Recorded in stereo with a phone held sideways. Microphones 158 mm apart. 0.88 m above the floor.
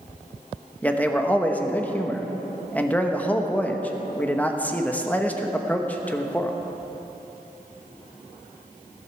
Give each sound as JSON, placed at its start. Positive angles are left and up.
{"t": 0.8, "sound": "a man speaking", "side_deg": 10, "distance_m": 1.0}